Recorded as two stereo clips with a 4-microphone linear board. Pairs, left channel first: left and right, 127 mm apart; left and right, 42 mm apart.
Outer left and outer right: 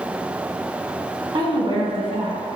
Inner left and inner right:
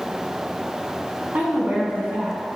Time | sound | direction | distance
1.3 | a woman speaking | 45° right (ahead or behind) | 1.6 m